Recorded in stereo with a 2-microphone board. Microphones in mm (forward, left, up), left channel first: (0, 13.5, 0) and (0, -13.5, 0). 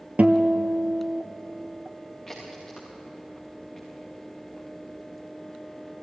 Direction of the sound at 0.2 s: 60° right (ahead or behind).